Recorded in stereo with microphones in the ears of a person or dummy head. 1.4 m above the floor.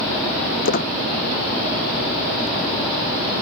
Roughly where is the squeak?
Left.